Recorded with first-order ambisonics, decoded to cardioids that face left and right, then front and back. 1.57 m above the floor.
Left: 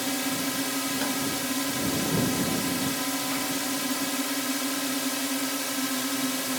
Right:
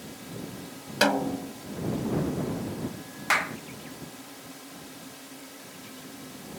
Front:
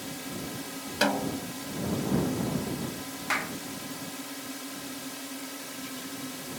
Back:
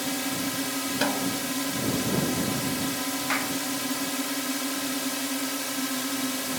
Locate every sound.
0.0 s a drone: 125° left
1.0 s a snare drum: 75° right
3.3 s a clap: 90° right